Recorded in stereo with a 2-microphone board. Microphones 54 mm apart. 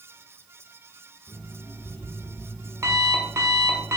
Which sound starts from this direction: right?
An alarm clock, at 1.3 s.